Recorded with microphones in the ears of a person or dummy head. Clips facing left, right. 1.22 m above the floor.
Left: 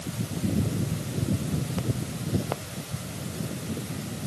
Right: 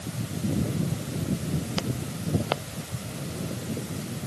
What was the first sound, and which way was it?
Only background noise.